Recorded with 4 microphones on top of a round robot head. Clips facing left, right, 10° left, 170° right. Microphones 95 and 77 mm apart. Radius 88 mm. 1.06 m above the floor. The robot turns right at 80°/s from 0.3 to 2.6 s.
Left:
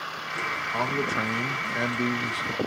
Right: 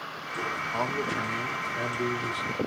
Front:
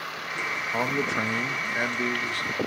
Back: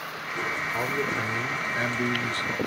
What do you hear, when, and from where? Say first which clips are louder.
0.7 s a man speaking: left 3 dB, front 3 dB; straight ahead, 1.1 m; by 2.6 s 145° left, 1.1 m